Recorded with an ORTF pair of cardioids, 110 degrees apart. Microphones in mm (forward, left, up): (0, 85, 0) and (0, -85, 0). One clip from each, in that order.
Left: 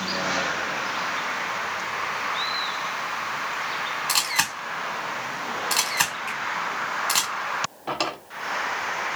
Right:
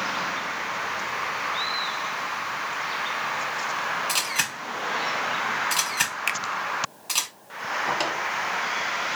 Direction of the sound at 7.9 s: 10° left.